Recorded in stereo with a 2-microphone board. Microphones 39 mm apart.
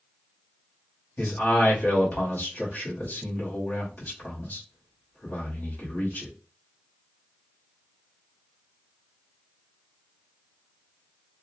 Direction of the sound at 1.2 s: 50° left (ahead or behind).